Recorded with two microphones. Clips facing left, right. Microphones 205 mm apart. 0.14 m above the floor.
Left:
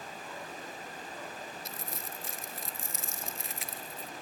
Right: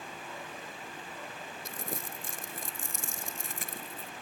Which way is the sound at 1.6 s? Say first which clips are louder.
Right 3 dB; 50° right (ahead or behind).